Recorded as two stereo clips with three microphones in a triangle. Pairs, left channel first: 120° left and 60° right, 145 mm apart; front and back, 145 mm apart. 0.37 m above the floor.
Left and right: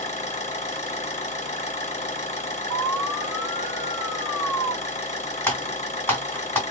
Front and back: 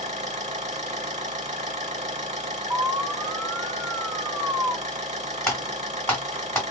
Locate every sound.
0.0 s an engine running: 155° left, 0.8 m
2.7 s an alarm: 120° right, 2 m
5.5 s typing on a keyboard: 60° left, 1.4 m